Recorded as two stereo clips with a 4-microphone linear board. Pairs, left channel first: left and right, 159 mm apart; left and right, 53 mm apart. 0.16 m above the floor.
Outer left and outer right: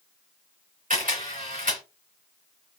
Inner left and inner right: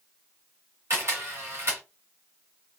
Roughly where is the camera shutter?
Right.